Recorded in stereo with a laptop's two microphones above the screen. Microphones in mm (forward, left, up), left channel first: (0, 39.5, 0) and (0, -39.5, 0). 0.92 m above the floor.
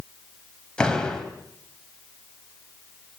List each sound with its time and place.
0.8 s a door slam: 10° left (ahead or behind), 4 m